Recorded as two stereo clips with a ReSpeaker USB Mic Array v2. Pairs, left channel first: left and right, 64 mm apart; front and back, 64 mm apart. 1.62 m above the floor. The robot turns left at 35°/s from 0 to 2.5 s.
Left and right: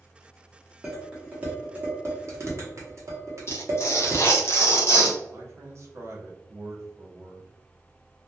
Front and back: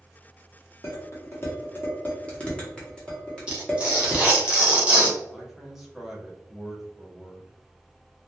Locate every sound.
0.8 s dishes clattering: 15° right, 1.0 m; by 4.5 s 70° right, 1.0 m
3.5 s tearing paper: 115° left, 0.7 m
5.3 s a man speaking: 100° right, 0.7 m